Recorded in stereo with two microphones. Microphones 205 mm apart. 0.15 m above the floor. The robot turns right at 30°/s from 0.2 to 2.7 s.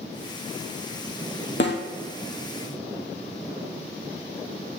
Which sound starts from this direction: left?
A snare drum, at 1.6 s.